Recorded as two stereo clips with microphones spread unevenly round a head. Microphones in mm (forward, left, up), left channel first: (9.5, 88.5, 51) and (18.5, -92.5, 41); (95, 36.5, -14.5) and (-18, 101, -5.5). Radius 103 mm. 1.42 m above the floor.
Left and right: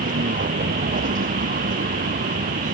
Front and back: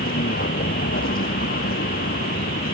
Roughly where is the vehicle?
Ahead right.